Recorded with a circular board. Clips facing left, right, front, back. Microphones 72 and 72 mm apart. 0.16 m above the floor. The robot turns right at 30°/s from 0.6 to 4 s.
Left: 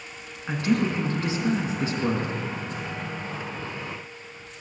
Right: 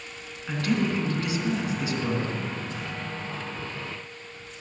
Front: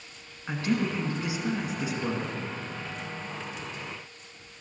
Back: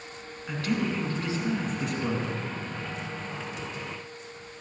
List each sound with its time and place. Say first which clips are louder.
0.5 s a man speaking: left 2 dB, front 1 dB; 45° left, 1.8 m; by 2.4 s 100° left, 1.8 m